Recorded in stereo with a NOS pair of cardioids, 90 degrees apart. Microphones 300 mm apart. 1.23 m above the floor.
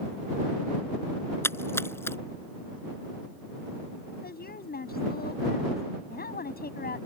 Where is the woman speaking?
30° left.